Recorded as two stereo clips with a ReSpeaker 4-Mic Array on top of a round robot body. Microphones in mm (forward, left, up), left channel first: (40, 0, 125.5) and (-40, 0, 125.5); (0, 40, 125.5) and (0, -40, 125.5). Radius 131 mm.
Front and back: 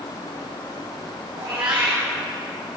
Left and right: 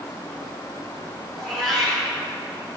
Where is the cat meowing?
175° left, 5 m.